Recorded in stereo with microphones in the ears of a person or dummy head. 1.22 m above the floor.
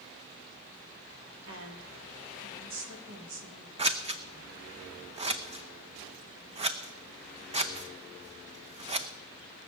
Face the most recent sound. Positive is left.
turn(degrees=-30)  # may be behind; listen again after turning